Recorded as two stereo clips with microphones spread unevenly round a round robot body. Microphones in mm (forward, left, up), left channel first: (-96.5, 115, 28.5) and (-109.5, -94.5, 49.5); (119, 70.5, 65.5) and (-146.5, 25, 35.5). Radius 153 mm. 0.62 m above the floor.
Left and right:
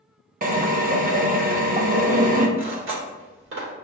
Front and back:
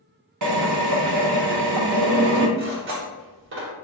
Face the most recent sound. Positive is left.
turn(degrees=-120)